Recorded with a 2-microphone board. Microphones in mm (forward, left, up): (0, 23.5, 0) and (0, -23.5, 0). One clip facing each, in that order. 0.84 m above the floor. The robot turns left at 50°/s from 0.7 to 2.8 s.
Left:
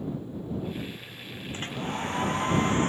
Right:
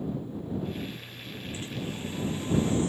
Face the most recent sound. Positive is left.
turn(degrees=60)